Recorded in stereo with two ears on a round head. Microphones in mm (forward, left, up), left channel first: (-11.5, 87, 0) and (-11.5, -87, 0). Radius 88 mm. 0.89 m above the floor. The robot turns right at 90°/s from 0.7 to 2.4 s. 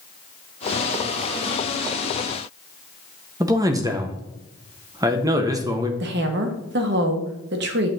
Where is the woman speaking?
60° right (ahead or behind), 1.0 m.